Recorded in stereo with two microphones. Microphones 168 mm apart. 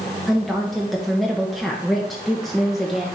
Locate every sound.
0.3 s a woman speaking: centre (ahead or behind), 0.9 m